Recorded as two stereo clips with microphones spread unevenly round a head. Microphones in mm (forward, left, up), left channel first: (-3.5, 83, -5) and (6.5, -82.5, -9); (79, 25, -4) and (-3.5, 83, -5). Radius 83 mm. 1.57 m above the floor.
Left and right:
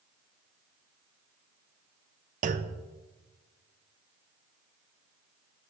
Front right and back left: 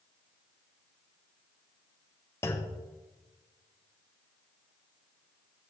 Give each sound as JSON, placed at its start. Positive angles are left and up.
{"t": 2.4, "sound": "a clunk", "azimuth_deg": -95, "distance_m": 0.6}